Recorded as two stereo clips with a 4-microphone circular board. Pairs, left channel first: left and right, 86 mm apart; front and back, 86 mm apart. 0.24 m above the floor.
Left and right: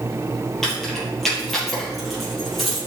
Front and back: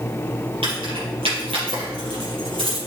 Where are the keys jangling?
175° left, 5 m; by 2.8 s 175° right, 6 m.